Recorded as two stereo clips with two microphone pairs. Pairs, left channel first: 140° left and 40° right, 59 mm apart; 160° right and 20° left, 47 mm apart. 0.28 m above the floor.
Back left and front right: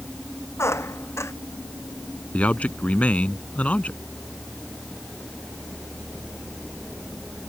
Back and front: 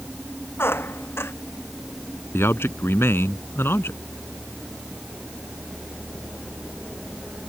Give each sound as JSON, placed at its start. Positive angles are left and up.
{"t": 0.6, "sound": "a squeak", "azimuth_deg": 180}
{"t": 2.3, "sound": "a man speaking", "azimuth_deg": -155}